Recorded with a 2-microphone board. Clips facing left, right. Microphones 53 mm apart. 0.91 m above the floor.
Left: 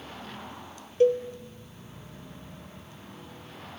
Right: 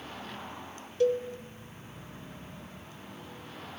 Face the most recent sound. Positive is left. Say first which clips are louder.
# left 4 dB
turn(degrees=30)  # may be behind; listen again after turning